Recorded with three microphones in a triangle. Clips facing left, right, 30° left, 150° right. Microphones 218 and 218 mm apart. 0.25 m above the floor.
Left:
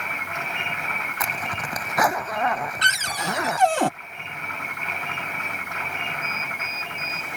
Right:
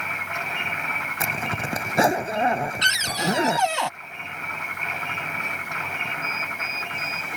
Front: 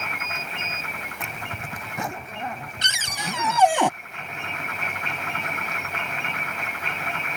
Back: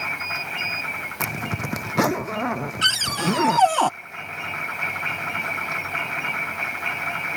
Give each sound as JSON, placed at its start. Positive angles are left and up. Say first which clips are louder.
{"t": 1.2, "sound": "a zipper", "louder": "right 4 dB, back 10 dB", "azimuth_deg": -155}
{"t": 2.8, "sound": "a cupboard door", "louder": "right 4 dB, back 9 dB", "azimuth_deg": 100}